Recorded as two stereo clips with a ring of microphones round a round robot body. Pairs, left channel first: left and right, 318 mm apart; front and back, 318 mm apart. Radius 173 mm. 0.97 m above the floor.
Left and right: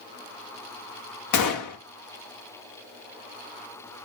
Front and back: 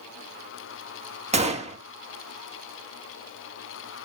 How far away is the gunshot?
About 1.9 m.